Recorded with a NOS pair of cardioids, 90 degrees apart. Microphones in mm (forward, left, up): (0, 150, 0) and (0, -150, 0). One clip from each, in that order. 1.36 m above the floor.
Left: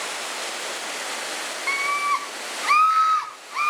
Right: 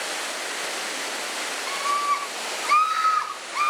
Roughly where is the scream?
Ahead left.